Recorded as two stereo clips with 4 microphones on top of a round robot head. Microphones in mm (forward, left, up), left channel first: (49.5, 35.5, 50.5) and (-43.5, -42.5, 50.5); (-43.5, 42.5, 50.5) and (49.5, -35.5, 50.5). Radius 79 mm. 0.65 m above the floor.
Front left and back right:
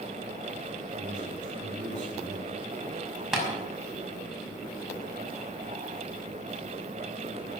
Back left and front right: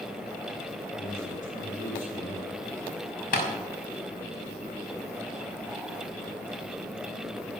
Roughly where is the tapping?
Behind left.